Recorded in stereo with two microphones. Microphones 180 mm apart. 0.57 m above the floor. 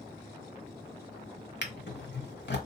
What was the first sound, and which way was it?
A drawer, 80° left.